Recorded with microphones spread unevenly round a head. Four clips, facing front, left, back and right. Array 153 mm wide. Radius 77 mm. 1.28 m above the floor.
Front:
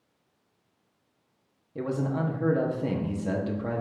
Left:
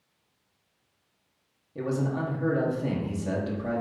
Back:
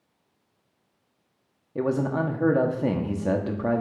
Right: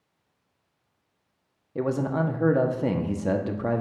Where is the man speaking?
140° right, 1.1 m.